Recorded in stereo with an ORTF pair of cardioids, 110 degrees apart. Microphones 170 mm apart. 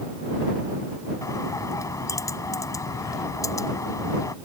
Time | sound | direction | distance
1.2 | a bird | 20° left | ?